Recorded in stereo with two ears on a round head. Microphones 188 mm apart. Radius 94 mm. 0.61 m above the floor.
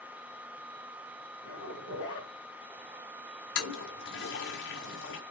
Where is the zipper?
65° left (ahead or behind), 3.5 m.